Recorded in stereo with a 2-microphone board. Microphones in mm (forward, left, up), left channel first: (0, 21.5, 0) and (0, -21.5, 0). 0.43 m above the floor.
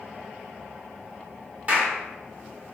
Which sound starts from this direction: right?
A clap, at 1.7 s.